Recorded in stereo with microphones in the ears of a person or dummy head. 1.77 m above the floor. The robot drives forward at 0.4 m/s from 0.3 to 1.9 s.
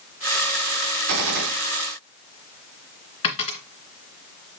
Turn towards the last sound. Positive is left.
turn(degrees=25)  # may be behind; listen again after turning